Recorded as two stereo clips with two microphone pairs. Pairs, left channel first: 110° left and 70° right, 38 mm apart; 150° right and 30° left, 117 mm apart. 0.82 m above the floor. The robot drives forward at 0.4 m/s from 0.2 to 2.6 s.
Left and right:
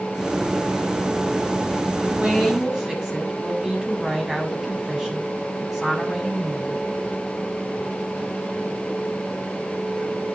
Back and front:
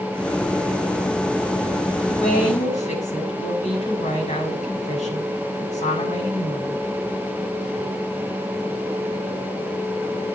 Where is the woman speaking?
145° right, 6.5 m.